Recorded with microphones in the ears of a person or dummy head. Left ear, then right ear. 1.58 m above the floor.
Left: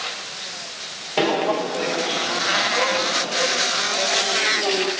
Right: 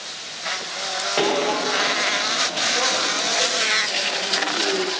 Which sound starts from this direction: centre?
Footsteps, at 1.2 s.